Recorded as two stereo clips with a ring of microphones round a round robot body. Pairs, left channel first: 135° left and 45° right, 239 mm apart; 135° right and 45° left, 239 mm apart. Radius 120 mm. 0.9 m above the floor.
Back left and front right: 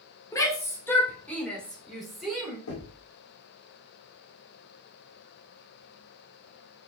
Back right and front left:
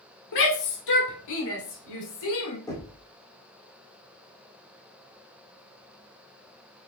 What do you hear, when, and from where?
0.3 s a shout: 150° right, 2.5 m; by 2.6 s 135° right, 3.5 m
2.7 s knocking: 150° left, 2.5 m